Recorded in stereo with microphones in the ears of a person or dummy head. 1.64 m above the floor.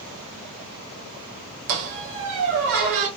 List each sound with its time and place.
1.7 s a squeak: 50° right (ahead or behind), 1.6 m